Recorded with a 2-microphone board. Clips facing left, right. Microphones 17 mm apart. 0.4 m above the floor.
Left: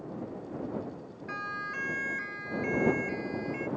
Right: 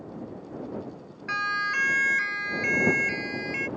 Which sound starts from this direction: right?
A siren, at 1.3 s.